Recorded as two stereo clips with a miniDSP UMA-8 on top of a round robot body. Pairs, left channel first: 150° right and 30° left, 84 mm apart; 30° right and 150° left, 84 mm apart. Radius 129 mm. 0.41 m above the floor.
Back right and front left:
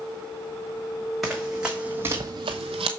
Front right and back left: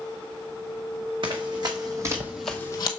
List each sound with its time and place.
1.2 s running footsteps: 120° left, 2.0 m; by 2.9 s 10° left, 0.9 m